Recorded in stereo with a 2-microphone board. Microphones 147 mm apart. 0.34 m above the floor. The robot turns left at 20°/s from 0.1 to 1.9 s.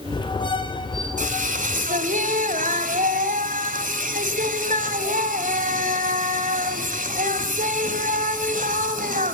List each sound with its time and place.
1.2 s singing: 60° right (ahead or behind), 1.5 m; by 9.3 s 65° right (ahead or behind), 1.5 m